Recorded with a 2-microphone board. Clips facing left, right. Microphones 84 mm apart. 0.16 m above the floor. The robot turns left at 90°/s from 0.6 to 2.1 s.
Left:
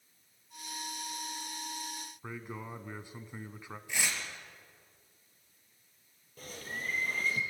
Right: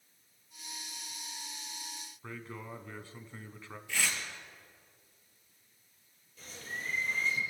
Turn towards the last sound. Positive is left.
turn(degrees=50)  # may be behind; listen again after turning